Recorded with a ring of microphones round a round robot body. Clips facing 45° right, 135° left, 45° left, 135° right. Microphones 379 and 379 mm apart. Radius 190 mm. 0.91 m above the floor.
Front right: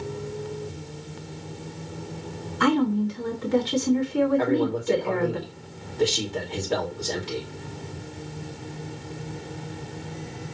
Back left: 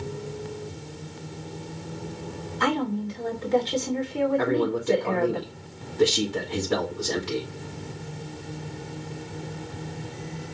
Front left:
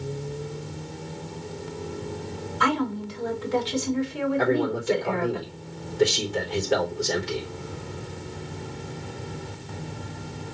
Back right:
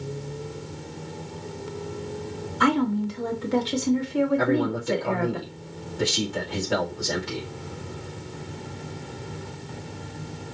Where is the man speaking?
155° right, 2.5 m.